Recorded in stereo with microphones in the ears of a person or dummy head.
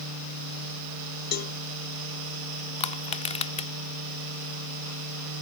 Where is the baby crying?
I don't hear a baby crying.